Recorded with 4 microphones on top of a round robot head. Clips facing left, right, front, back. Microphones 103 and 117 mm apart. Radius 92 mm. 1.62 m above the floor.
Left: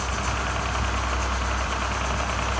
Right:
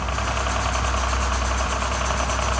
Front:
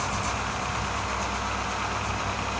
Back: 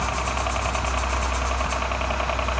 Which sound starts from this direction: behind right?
A helicopter, at 0.0 s.